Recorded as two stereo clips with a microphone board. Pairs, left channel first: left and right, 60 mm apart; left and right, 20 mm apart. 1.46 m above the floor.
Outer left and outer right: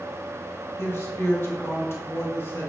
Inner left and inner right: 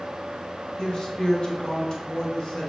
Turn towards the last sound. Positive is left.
turn(degrees=40)  # may be behind; listen again after turning